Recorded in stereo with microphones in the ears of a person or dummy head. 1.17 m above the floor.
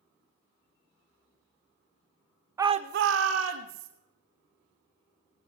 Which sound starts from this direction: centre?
A shout, at 2.6 s.